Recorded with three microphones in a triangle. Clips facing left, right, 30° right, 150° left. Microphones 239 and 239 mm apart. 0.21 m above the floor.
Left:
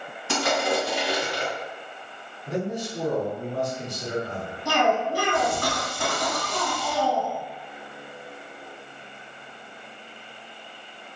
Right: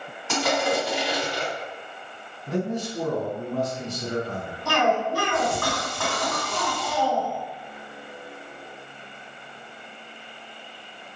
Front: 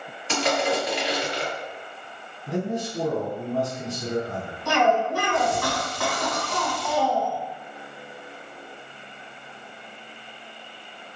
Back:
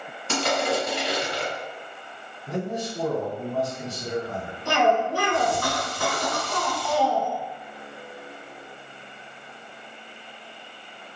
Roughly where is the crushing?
Behind.